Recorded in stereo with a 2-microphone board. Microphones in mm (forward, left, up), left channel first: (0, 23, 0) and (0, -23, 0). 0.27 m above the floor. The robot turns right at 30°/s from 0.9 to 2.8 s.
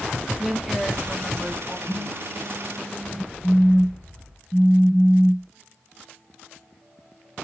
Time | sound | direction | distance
0.4 | a woman speaking | 10° right (ahead or behind) | 1.3 m
1.9 | a phone buzzing | 35° left (ahead or behind) | 0.7 m
3.4 | a phone buzzing | 5° left (ahead or behind) | 0.5 m